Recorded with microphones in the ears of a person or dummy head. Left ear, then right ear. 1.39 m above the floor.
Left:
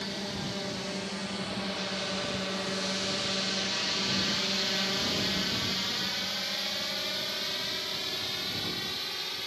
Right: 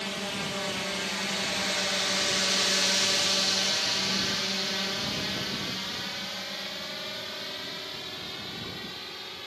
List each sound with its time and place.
0.0 s a drone: 35° right (ahead or behind); by 9.5 s 5° left (ahead or behind)